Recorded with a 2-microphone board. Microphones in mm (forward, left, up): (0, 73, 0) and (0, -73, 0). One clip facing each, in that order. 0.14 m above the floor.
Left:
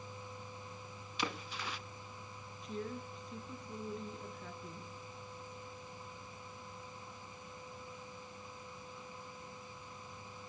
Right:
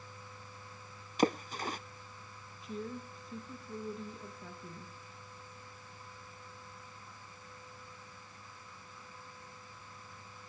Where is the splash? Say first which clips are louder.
Right 10 dB; 45° right (ahead or behind), 0.5 m.